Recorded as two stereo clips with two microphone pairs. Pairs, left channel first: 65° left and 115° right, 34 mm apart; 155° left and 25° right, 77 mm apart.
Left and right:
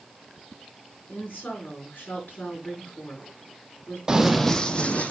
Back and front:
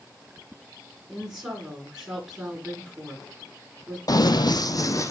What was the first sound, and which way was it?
A woman speaking, 50° left.